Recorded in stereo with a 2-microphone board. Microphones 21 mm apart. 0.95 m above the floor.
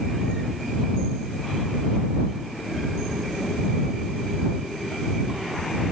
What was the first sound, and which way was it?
Only background noise.